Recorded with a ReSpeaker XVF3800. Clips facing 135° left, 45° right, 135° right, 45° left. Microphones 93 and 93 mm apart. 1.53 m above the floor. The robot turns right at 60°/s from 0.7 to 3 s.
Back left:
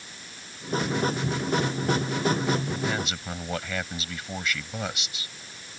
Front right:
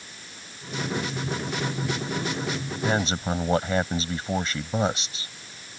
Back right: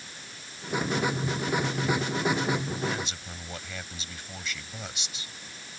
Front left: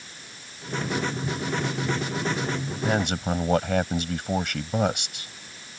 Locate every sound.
2.8 s a man speaking: 5° left; by 5.3 s 10° left